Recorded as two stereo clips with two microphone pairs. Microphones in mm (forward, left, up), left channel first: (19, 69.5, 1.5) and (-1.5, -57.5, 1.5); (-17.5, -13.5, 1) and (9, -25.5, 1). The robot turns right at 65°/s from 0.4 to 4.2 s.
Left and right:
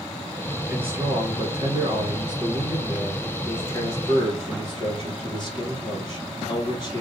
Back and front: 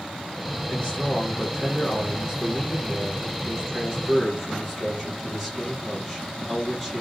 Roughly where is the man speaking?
Behind.